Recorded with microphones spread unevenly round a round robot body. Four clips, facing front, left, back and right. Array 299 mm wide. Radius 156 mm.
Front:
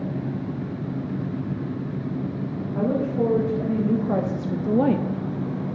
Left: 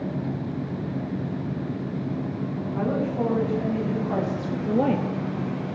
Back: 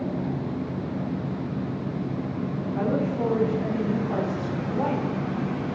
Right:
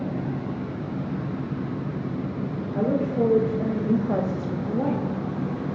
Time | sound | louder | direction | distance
2.7 | a woman speaking | right 3 dB, front 3 dB | 70° right | 2.5 m